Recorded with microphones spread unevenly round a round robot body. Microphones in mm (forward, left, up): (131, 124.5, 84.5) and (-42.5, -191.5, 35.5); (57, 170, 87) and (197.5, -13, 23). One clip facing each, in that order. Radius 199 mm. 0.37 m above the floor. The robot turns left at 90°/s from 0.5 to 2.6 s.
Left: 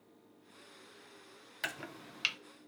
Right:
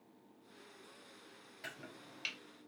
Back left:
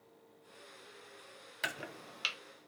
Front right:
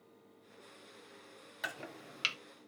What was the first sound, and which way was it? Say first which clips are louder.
Chopping: left 6 dB, back left 1 dB; 60° left.